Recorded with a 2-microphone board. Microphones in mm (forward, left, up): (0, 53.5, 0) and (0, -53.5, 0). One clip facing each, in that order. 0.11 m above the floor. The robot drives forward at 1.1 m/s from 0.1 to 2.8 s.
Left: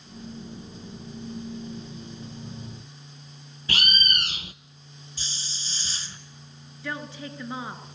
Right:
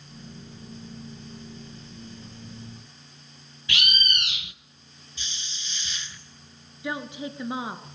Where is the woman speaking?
15° right (ahead or behind), 1.7 m.